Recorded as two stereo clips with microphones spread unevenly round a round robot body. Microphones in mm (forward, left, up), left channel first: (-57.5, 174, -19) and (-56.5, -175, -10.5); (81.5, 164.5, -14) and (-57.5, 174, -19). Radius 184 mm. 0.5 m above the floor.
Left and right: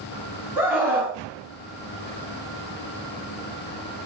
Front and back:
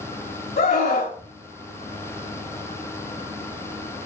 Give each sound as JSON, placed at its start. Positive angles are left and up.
{"t": 0.6, "sound": "a scream", "azimuth_deg": -5, "distance_m": 4.5}